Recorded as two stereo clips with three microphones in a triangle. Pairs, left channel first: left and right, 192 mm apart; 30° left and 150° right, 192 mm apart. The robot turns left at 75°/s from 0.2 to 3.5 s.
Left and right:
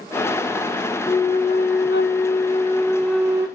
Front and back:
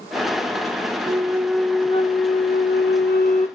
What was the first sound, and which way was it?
A flute, 155° left.